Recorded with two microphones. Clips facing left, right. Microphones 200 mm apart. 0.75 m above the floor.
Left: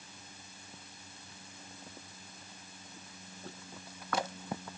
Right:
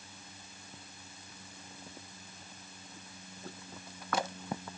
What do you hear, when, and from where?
Only background noise.